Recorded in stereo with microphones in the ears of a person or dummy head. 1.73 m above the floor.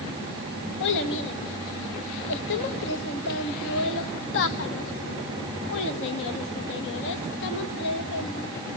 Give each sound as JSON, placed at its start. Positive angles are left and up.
{"t": 0.8, "sound": "a child speaking", "side_deg": 65, "distance_m": 1.8}